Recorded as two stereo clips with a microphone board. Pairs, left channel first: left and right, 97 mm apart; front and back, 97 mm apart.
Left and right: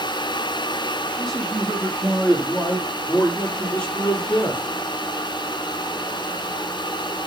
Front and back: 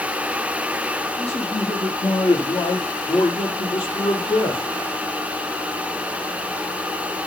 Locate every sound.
1.2 s a man speaking: straight ahead, 6 m; by 4.6 s 20° left, 4 m